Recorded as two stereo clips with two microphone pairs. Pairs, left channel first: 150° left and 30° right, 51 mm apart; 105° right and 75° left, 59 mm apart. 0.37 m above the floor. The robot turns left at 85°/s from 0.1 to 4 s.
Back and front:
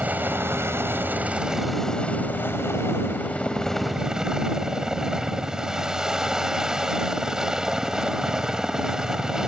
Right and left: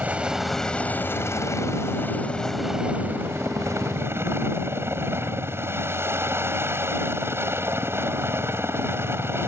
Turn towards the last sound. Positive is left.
turn(degrees=45)